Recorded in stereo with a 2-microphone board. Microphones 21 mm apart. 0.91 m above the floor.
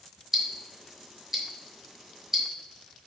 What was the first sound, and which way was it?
Ticking, 15° right (ahead or behind).